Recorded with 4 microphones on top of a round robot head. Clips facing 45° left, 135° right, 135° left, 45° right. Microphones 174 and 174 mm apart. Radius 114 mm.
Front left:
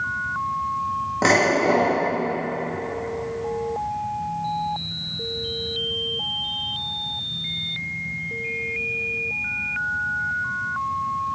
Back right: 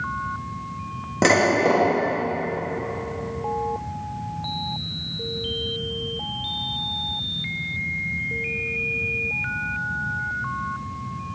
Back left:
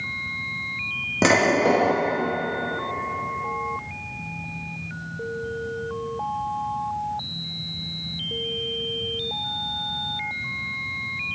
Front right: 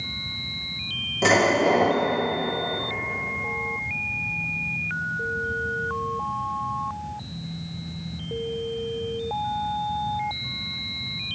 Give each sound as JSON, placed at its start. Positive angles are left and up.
{"t": 1.2, "sound": "dishes clattering", "azimuth_deg": 165, "distance_m": 2.0}